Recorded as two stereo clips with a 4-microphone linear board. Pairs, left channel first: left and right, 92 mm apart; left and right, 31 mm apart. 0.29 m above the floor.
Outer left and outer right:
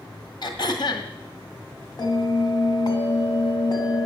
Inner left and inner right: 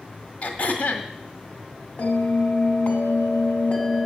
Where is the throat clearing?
50° left (ahead or behind), 1.8 m.